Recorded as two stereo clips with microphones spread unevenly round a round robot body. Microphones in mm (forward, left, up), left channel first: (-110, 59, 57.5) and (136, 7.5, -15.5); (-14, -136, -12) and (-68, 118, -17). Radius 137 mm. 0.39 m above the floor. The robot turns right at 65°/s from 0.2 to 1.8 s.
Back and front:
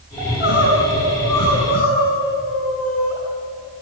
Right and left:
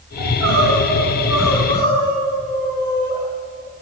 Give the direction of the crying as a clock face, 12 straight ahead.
9 o'clock.